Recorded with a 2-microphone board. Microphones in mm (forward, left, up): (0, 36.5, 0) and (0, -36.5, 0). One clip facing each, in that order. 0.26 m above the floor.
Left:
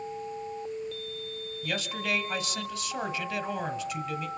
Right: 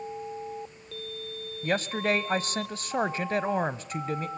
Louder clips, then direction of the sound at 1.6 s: Right 6 dB; 40° right (ahead or behind).